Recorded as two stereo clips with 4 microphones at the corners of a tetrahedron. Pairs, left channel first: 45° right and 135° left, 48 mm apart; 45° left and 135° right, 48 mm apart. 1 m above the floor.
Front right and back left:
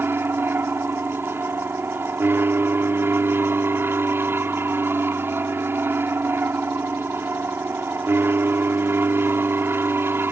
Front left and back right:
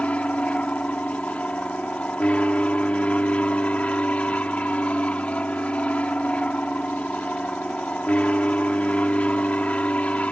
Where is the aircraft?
105° left.